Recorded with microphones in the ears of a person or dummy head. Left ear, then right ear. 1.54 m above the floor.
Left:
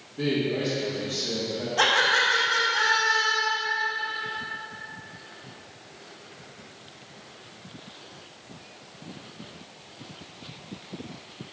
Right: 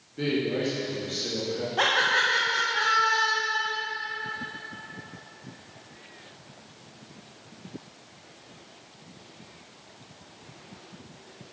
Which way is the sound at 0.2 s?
40° right (ahead or behind).